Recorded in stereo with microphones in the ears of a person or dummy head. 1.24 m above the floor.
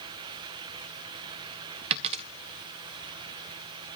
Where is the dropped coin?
30° right (ahead or behind), 0.7 m.